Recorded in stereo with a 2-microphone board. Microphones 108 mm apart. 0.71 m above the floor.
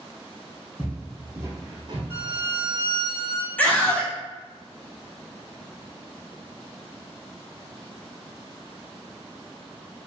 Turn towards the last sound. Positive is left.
turn(degrees=15)  # may be behind; listen again after turning